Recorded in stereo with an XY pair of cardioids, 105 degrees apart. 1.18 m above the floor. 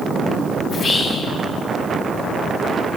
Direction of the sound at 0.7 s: 65° left.